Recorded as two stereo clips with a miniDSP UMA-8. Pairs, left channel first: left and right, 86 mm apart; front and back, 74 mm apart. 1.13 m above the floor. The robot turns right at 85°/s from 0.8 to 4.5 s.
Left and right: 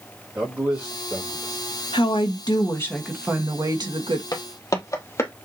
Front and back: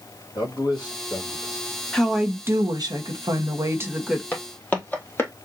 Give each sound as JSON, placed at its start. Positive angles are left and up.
{"t": 0.3, "sound": "a man speaking", "azimuth_deg": -15, "distance_m": 2.0}
{"t": 1.9, "sound": "a woman speaking", "azimuth_deg": 75, "distance_m": 1.4}
{"t": 4.3, "sound": "footsteps", "azimuth_deg": 55, "distance_m": 1.8}